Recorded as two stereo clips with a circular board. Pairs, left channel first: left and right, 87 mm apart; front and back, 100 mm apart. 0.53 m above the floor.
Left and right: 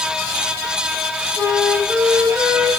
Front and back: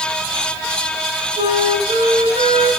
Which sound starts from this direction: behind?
A flute, at 1.4 s.